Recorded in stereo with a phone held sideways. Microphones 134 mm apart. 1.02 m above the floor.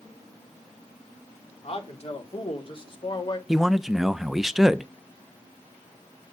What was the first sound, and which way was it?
A man speaking, 50° left (ahead or behind).